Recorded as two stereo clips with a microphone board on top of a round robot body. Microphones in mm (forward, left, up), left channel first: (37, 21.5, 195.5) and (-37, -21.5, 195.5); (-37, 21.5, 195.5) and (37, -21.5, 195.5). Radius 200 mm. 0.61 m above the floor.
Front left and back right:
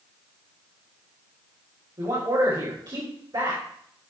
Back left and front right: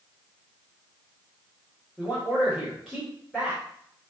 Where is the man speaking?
120° right, 4 m.